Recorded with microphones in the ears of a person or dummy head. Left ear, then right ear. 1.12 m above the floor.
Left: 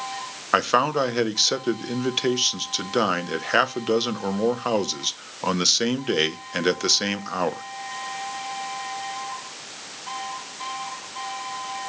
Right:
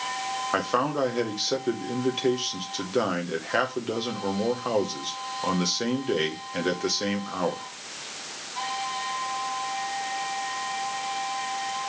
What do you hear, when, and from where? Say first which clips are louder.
0.5 s a man speaking: left 7 dB; 50° left (ahead or behind), 0.8 m